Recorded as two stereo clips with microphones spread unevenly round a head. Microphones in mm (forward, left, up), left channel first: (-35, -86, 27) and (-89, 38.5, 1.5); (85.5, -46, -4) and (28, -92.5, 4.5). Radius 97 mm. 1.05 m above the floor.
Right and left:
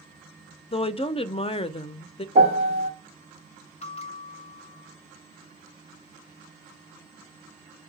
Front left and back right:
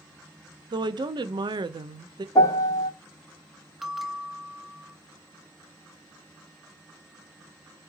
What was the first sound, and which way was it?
A woman speaking, 120° right.